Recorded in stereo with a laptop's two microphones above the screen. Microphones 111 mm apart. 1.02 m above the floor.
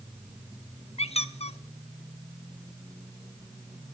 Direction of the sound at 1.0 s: 70° left (ahead or behind).